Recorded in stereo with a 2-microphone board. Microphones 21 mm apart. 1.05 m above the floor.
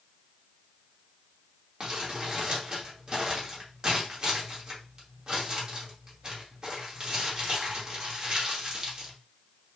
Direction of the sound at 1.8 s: 25° right (ahead or behind).